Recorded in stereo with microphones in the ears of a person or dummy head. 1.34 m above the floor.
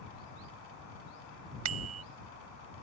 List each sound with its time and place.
1.6 s a bicycle bell: 75° right (ahead or behind)